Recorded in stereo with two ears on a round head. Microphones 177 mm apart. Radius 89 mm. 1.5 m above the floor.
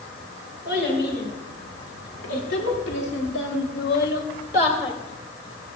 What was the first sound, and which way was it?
A child speaking, 60° left (ahead or behind).